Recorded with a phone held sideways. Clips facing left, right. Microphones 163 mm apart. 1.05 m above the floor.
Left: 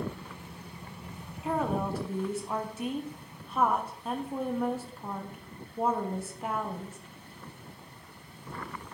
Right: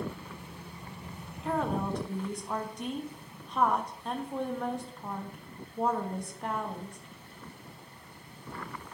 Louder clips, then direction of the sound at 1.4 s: Left 1 dB; 5° left (ahead or behind).